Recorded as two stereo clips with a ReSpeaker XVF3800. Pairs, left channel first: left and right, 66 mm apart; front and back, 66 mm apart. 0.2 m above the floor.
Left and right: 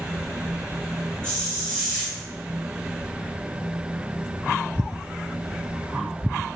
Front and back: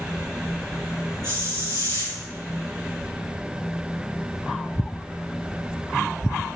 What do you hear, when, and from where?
1.2 s a hiss: 15° left, 4 m